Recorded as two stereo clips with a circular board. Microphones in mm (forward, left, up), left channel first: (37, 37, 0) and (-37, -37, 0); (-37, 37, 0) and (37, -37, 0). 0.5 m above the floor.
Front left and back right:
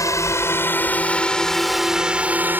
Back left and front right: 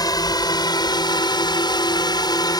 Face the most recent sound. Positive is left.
turn(degrees=165)